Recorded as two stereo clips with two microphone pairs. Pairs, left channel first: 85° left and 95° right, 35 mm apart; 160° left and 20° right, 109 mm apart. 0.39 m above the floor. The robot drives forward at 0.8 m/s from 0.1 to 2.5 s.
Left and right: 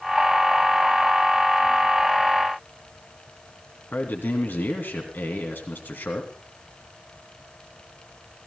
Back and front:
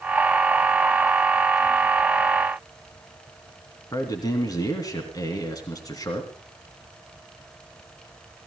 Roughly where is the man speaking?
Left.